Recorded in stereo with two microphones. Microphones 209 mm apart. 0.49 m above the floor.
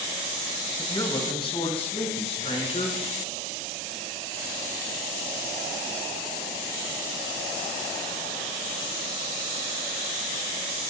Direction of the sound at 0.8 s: 20° left (ahead or behind).